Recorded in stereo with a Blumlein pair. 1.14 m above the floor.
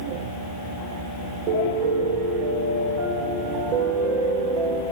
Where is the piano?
40° right, 0.9 m.